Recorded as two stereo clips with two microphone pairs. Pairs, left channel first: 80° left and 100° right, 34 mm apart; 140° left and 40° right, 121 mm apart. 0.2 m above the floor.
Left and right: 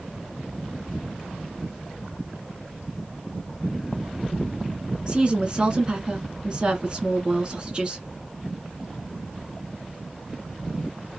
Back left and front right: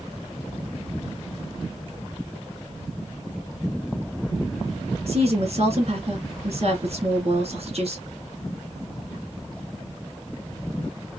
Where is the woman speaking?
45° right, 2 m.